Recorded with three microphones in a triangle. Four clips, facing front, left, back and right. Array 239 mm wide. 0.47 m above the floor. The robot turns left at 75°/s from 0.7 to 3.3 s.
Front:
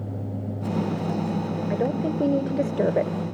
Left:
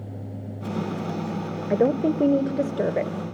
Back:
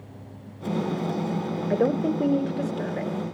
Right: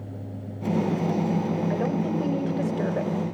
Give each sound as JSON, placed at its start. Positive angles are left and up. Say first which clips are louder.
{"t": 1.7, "sound": "a woman speaking", "louder": "left 5 dB, back 3 dB", "azimuth_deg": 120, "distance_m": 1.8}